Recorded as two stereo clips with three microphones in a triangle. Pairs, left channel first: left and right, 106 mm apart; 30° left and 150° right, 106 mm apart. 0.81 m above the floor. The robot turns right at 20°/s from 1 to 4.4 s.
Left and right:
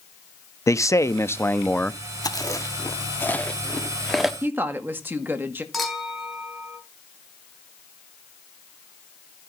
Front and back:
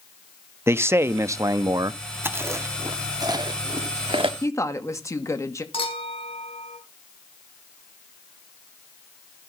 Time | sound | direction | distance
0.7 | a man speaking | 150° left | 0.7 m
2.2 | chewing | 140° left | 1.2 m
4.4 | a woman speaking | 25° right | 1.5 m
5.7 | a clink | straight ahead | 5.5 m